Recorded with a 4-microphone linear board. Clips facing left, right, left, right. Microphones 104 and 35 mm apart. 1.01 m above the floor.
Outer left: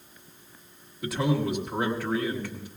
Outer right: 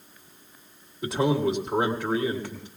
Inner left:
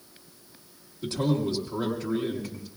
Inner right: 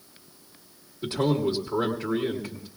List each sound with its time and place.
1.0 s a man speaking: 25° right (ahead or behind), 1.4 m